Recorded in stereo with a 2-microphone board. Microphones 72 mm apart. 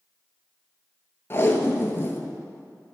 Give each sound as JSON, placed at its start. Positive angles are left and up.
{"t": 1.3, "sound": "tape being pulled", "side_deg": 30, "distance_m": 0.9}